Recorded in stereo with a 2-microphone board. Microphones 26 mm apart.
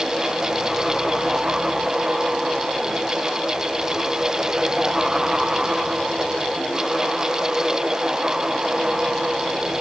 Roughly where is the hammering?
No hammering in this recording.